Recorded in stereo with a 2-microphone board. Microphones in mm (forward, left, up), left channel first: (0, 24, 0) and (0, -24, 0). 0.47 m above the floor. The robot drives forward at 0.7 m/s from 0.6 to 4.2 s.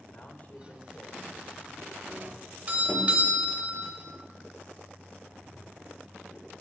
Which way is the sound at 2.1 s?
40° right (ahead or behind).